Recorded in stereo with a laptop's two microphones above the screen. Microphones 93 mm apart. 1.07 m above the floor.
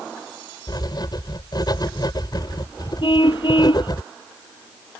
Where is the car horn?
60° left (ahead or behind).